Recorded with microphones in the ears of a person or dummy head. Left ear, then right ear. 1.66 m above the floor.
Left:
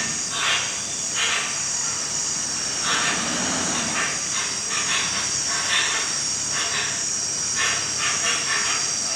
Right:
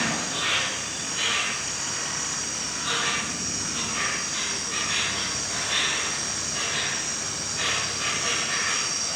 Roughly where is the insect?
Left.